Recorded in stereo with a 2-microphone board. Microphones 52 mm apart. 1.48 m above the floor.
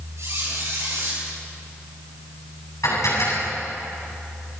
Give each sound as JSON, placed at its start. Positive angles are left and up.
{"t": 0.2, "sound": "a squeak", "side_deg": -65, "distance_m": 9.5}
{"t": 2.8, "sound": "dishes clattering", "side_deg": 85, "distance_m": 8.0}